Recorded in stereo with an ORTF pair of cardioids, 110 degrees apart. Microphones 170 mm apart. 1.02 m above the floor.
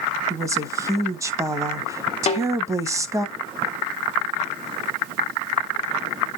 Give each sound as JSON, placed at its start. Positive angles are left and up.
{"t": 0.3, "sound": "a woman speaking", "azimuth_deg": -20, "distance_m": 1.1}
{"t": 2.3, "sound": "a snare drum", "azimuth_deg": 40, "distance_m": 0.9}